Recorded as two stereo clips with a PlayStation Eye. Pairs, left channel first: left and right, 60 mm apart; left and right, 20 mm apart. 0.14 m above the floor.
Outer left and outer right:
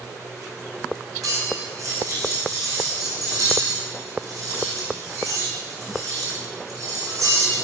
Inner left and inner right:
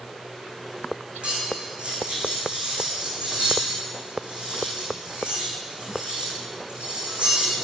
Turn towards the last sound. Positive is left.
turn(degrees=-65)  # may be behind; listen again after turning